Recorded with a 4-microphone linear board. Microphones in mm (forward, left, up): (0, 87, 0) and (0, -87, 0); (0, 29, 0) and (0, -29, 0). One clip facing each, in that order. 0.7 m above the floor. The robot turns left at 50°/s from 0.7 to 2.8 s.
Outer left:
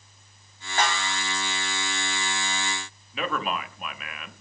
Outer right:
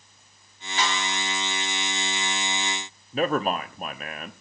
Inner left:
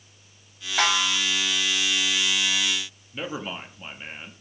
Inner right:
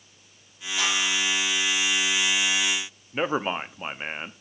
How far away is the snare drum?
About 2 m.